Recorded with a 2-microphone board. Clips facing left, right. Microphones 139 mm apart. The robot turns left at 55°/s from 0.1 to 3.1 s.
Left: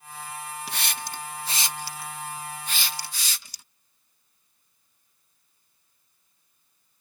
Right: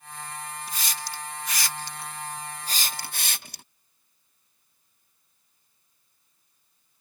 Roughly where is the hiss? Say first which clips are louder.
Left 1 dB; left.